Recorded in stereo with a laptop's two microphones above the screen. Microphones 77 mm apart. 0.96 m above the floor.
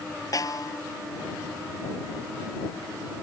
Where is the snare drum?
50° left (ahead or behind).